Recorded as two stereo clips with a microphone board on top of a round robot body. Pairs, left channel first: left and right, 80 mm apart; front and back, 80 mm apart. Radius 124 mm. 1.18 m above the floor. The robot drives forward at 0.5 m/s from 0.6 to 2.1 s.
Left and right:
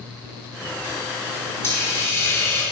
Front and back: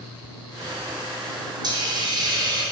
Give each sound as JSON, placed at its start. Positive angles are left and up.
{"t": 1.6, "sound": "a hiss", "azimuth_deg": 145, "distance_m": 4.0}